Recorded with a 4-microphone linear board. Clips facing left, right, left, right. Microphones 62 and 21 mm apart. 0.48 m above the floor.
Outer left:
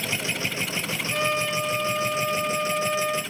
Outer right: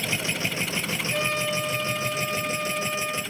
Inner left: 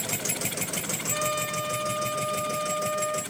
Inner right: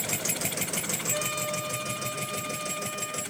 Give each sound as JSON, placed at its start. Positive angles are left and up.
{"t": 1.1, "sound": "a trumpet", "side_deg": 55, "distance_m": 1.9}